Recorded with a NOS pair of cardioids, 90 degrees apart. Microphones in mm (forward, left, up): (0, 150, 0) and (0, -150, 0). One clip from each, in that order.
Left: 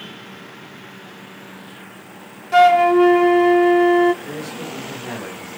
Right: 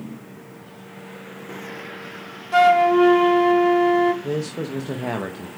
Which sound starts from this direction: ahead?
A flute, at 2.5 s.